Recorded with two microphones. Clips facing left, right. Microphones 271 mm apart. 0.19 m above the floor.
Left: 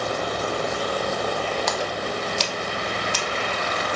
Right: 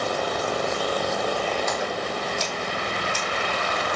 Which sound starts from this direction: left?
A splash, at 1.7 s.